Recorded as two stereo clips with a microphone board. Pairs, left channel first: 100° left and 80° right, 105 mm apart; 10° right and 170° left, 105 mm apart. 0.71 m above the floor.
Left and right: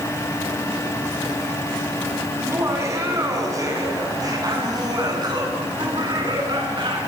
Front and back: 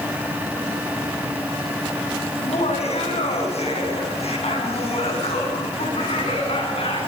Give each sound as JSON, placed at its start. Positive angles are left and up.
{"t": 2.4, "sound": "laughter", "azimuth_deg": -15, "distance_m": 7.5}